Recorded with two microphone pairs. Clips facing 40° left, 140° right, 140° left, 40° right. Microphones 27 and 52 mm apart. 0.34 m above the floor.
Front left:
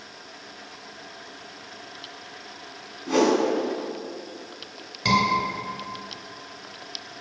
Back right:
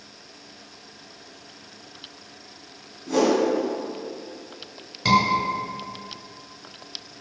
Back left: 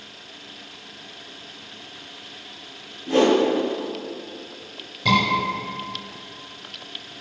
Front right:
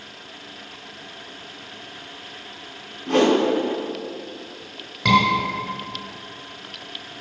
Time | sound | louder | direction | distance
3.1 | a whoosh | even, even | 20° right | 3 m
5.0 | a scream | back right 2 dB, front right 3 dB | 50° right | 3.5 m